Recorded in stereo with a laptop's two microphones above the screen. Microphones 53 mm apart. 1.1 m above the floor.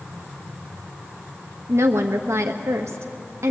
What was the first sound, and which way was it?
A woman speaking, 70° right (ahead or behind).